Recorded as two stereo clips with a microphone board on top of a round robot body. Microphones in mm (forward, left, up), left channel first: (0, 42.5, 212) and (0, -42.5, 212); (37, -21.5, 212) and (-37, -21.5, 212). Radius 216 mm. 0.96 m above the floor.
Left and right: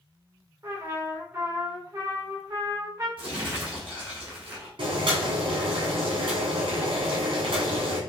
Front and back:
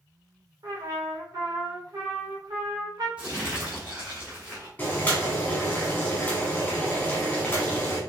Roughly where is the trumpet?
Behind right.